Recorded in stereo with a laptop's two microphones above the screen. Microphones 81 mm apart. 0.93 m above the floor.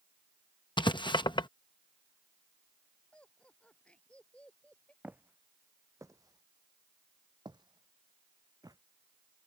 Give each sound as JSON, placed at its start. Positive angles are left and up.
{"t": 0.8, "sound": "writing", "side_deg": 65}
{"t": 3.1, "sound": "laughter", "side_deg": 10}
{"t": 5.0, "sound": "footsteps", "side_deg": -20}